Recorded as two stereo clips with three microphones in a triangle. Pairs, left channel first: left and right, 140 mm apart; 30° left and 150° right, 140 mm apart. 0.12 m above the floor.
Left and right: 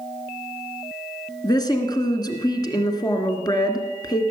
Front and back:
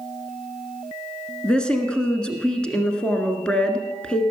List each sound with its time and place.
1.4 s a woman speaking: 105° left, 1.6 m